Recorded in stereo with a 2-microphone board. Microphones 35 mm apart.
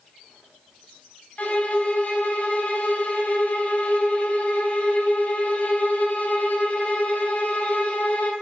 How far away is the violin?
About 0.6 m.